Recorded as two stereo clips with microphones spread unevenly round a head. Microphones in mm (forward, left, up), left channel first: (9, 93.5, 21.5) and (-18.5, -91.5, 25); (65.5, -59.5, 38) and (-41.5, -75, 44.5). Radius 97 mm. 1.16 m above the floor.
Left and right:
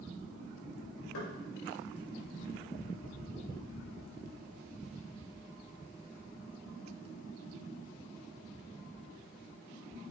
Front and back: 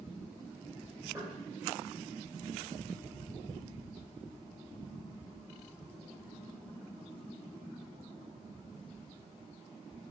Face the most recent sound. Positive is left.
turn(degrees=100)